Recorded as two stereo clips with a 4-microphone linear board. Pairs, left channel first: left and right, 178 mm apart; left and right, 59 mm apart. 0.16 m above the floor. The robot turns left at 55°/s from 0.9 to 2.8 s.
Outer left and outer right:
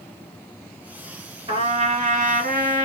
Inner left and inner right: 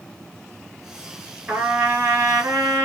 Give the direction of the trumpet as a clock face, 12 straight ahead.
1 o'clock.